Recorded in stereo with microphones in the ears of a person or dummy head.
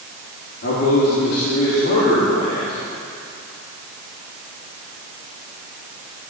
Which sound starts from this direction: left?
A man speaking, at 0.6 s.